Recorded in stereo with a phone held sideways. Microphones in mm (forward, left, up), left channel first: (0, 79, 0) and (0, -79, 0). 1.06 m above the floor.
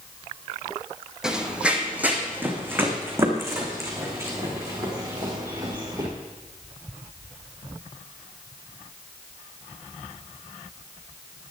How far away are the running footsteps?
About 1.9 m.